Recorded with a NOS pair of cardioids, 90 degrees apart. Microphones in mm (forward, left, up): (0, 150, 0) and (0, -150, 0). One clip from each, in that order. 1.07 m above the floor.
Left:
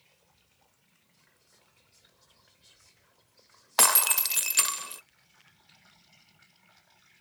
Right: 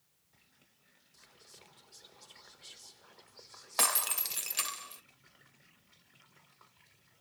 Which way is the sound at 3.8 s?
35° left.